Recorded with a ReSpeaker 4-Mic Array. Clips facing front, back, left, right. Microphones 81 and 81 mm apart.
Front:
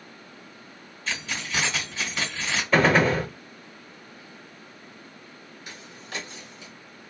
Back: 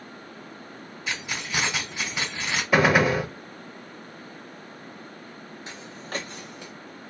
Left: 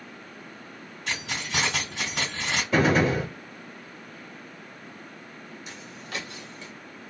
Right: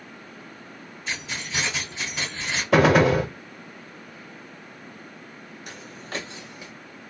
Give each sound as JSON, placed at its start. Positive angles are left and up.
{"t": 1.1, "sound": "keys jangling", "azimuth_deg": 105, "distance_m": 1.7}
{"t": 2.7, "sound": "a gunshot", "azimuth_deg": -100, "distance_m": 0.6}
{"t": 5.7, "sound": "footsteps", "azimuth_deg": -120, "distance_m": 0.9}